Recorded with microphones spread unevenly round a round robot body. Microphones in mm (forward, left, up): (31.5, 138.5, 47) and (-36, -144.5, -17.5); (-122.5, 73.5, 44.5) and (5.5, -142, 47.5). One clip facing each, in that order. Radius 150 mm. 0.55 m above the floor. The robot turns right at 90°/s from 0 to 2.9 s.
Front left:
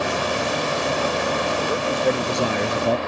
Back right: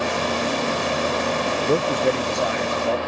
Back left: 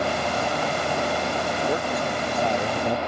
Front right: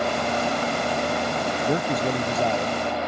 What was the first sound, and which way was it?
A man speaking, 50° right.